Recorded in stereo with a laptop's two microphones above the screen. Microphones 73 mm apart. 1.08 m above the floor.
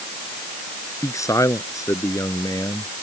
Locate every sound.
1.0 s a man speaking: 45° left (ahead or behind)